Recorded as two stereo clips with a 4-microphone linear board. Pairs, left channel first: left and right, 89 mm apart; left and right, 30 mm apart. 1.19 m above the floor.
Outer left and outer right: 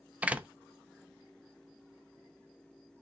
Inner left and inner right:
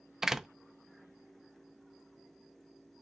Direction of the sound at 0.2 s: 15° right (ahead or behind).